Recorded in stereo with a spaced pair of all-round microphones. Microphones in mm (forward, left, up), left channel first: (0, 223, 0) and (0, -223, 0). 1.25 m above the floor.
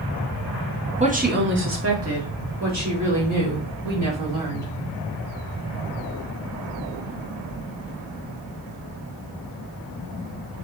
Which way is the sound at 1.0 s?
15° right (ahead or behind).